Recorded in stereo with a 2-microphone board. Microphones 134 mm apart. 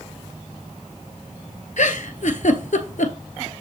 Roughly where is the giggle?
Left.